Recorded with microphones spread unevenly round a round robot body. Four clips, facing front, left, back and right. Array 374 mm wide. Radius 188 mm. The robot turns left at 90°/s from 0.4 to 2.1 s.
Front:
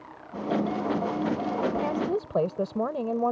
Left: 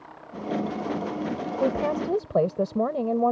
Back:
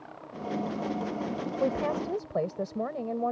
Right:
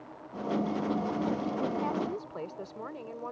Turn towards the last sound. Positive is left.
turn(degrees=65)